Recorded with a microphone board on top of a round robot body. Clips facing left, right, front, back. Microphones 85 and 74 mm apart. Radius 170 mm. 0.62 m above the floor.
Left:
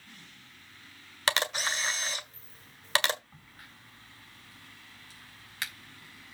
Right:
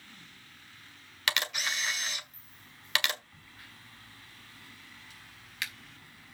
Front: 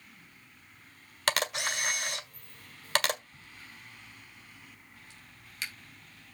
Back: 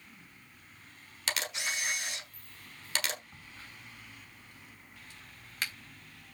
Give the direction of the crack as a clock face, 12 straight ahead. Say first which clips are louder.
Even, back 1 dB; 7 o'clock.